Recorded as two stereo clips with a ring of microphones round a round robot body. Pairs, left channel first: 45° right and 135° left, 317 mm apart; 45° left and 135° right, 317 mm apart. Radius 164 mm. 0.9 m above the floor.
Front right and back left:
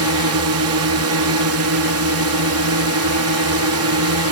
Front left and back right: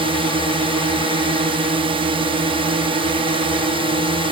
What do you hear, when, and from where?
0.0 s a drone: 155° left